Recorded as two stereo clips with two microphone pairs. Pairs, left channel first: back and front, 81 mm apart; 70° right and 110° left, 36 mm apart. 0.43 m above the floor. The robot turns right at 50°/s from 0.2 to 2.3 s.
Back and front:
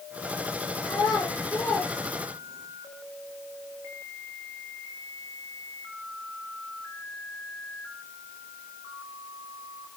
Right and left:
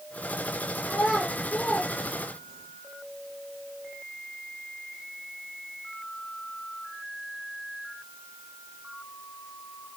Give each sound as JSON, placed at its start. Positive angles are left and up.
{"t": 0.9, "sound": "a child speaking", "azimuth_deg": -155, "distance_m": 7.0}